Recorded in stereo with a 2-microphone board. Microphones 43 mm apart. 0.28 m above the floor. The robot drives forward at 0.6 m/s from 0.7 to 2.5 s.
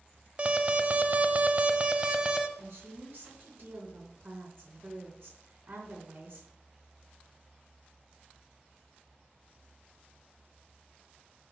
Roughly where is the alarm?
Right.